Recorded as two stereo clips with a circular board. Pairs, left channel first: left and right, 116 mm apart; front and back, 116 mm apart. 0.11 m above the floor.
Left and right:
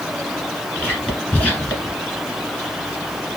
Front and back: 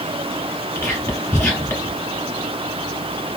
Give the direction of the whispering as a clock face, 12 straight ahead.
11 o'clock.